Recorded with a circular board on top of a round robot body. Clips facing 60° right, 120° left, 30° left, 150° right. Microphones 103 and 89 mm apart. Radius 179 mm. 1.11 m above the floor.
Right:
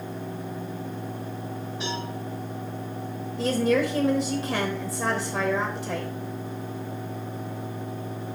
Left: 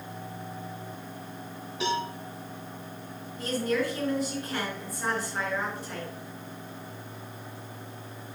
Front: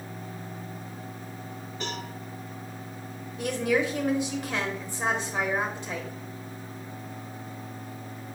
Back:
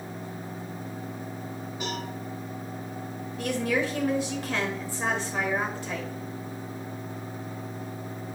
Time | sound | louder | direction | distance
1.8 | a cowbell | left 5 dB, back 1 dB | 130° left | 3.5 m
3.4 | a woman speaking | right 6 dB, front 1 dB | 65° right | 1.3 m